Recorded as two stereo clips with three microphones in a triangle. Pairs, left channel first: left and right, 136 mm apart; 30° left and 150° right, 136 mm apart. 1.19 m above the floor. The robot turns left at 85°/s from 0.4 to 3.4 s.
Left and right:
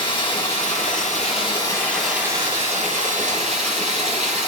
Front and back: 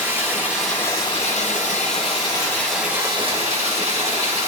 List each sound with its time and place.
0.0 s running water: 140° left, 3.5 m; by 4.5 s 115° right, 3.5 m